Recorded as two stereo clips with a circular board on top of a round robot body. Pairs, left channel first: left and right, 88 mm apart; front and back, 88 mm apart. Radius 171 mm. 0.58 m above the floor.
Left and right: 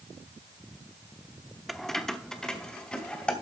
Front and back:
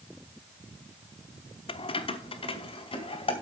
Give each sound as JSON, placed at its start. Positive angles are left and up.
{"t": 1.7, "sound": "keys jangling", "azimuth_deg": 0, "distance_m": 0.8}